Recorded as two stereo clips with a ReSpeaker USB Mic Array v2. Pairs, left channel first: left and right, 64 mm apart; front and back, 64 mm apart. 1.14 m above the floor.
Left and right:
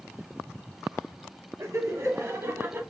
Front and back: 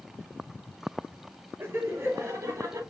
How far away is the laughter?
About 3 m.